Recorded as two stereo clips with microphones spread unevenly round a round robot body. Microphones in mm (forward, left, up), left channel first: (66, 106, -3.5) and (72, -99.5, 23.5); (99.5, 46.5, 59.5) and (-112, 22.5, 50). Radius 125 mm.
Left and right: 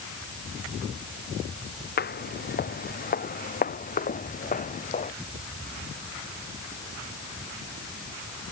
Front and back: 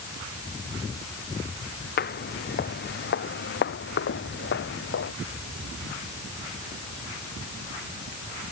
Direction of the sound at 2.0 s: 50° left.